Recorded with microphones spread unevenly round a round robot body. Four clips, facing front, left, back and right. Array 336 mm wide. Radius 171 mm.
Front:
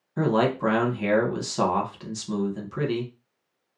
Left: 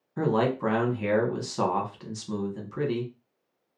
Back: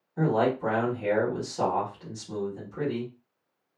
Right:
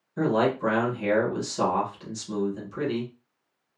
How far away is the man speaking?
About 1.2 m.